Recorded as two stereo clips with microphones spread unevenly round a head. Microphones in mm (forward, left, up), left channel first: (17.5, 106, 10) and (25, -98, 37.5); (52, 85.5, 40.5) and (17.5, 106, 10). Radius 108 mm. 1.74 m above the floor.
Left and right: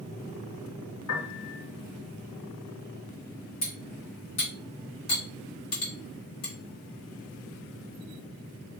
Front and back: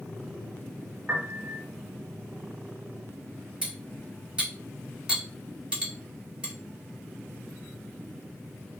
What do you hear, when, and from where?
1.1 s a piano: 80° left, 3 m
3.6 s cutlery clinking: 70° left, 3 m